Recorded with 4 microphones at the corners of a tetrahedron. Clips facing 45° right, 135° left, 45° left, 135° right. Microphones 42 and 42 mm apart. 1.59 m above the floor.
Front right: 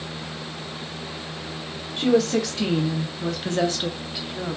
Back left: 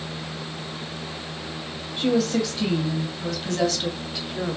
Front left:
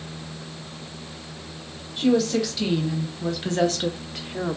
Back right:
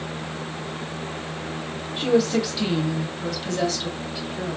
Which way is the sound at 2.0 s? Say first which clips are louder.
Front right 2 dB, even; 70° right.